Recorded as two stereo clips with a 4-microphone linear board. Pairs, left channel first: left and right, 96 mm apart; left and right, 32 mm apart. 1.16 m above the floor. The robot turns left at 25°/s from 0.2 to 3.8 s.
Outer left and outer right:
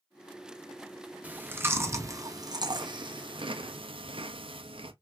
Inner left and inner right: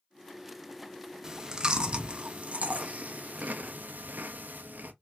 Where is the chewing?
15° right (ahead or behind), 0.6 m; by 4.9 s 70° right (ahead or behind), 0.6 m.